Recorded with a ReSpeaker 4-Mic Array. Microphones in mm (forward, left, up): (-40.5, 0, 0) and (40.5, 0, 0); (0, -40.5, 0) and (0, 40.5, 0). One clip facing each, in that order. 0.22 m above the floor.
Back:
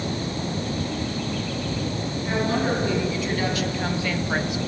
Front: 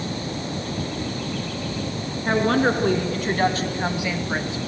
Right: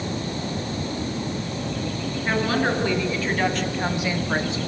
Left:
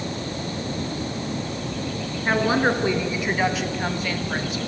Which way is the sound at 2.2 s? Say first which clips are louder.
Front 5 dB, left 3 dB; 25° left.